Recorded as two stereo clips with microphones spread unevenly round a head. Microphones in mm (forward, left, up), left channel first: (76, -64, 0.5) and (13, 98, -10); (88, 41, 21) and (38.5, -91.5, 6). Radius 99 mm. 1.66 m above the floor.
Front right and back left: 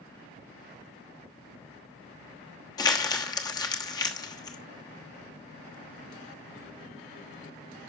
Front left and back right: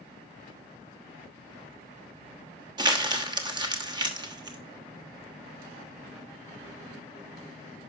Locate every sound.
2.8 s crumpling: 85° right, 1.2 m